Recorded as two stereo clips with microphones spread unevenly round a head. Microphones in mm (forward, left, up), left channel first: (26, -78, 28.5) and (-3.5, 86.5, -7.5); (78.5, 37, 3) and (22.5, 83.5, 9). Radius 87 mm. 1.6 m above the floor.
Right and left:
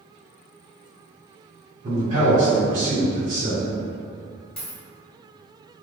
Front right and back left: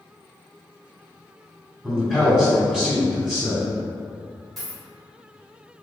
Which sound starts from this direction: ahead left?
A man speaking, at 1.8 s.